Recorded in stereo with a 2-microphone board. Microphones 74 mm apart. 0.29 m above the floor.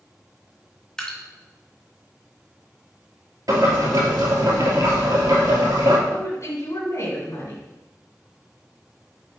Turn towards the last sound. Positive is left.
turn(degrees=50)  # may be behind; listen again after turning